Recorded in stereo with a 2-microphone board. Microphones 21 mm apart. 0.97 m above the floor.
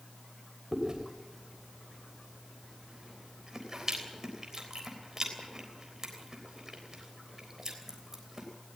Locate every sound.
0.7 s chewing: 20° right (ahead or behind), 3.5 m